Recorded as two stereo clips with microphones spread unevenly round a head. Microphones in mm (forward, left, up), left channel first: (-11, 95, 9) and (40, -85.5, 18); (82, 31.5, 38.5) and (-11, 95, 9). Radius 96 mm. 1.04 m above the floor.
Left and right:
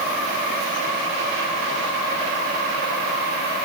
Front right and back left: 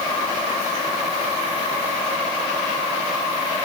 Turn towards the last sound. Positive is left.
No sound to turn to.